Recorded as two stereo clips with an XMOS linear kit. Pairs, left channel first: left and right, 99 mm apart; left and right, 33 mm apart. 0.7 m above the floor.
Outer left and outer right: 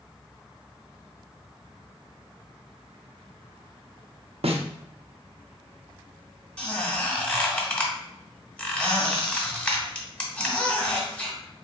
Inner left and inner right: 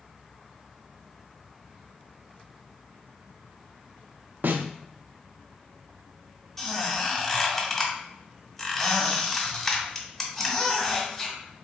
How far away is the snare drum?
About 0.5 m.